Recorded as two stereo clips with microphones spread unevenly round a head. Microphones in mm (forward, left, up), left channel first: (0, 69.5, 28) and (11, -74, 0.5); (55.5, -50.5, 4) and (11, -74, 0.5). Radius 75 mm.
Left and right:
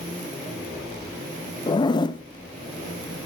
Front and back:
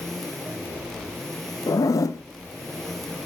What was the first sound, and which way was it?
A zipper, 30° left.